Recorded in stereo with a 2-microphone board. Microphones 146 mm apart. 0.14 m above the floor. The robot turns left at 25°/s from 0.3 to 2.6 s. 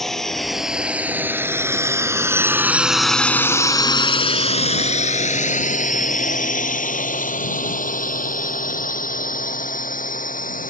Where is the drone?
Centre (ahead or behind); by 10.7 s 70° left (ahead or behind).